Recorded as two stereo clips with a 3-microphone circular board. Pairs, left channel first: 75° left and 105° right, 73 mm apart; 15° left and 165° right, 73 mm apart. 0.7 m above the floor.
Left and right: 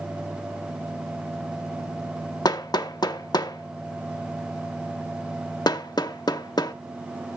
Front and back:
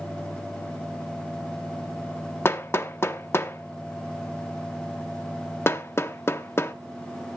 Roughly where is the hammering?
Left.